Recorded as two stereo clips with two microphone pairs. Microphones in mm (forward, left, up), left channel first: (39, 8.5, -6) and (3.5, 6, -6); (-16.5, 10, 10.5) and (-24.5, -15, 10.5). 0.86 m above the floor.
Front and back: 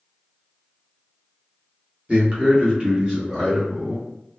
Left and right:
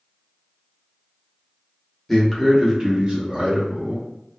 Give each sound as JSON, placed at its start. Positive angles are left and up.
{"t": 2.1, "sound": "a man speaking", "azimuth_deg": 150, "distance_m": 1.0}